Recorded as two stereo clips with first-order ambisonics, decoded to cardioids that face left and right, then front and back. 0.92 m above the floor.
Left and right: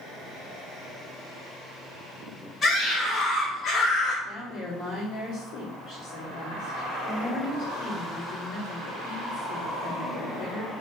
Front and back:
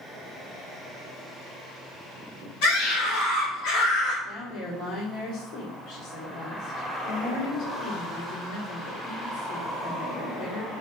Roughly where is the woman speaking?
Ahead left.